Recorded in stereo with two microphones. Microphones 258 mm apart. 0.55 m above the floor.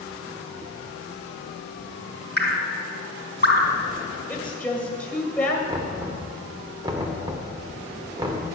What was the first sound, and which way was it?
Dripping, 40° left (ahead or behind).